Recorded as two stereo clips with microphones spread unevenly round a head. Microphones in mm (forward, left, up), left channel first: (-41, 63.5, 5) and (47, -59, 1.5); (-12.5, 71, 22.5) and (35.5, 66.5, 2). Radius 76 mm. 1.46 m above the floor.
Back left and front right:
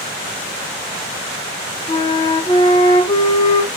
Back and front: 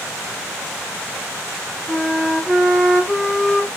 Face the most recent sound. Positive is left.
turn(degrees=140)